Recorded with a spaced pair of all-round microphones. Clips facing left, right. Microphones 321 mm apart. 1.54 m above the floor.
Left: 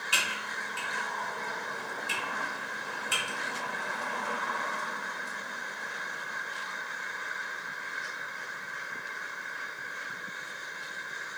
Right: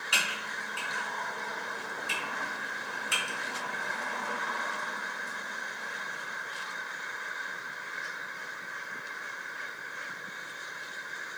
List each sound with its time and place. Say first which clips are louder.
0.1 s typing on a keyboard: even; centre (ahead or behind), 1.1 m